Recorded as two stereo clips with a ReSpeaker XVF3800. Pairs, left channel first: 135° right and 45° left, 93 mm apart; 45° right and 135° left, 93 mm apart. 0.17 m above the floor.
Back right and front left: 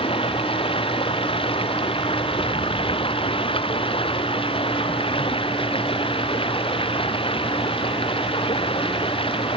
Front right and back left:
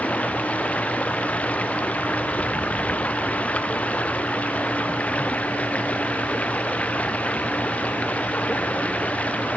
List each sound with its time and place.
0.0 s running water: 120° right